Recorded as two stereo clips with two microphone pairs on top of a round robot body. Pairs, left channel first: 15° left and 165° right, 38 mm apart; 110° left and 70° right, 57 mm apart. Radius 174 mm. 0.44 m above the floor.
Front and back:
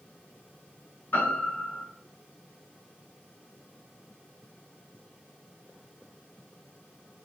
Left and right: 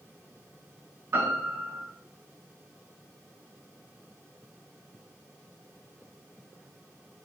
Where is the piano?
15° right, 8 m.